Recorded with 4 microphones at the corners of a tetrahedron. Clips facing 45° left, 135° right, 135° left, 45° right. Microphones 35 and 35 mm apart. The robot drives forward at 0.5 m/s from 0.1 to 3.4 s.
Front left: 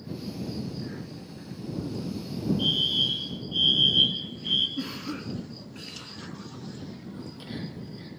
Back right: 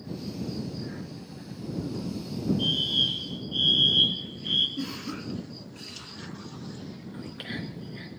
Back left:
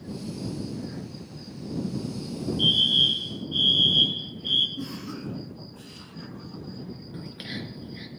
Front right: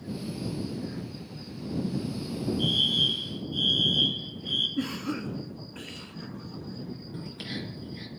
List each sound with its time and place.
2.6 s a fire alarm: 125° left, 3 m; by 4.7 s 135° left, 3 m
4.8 s a cough: 20° right, 2 m
7.1 s whispering: 155° right, 4 m